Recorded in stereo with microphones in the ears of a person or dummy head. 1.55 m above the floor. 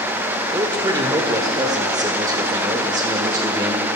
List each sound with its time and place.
0.5 s a man speaking: 20° right (ahead or behind), 0.6 m